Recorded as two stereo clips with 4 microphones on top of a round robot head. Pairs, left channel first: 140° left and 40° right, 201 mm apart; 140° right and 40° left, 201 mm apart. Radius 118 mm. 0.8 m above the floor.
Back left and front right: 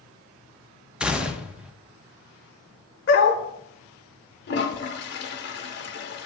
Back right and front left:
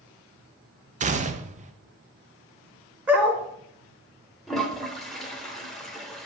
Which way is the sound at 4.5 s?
135° left.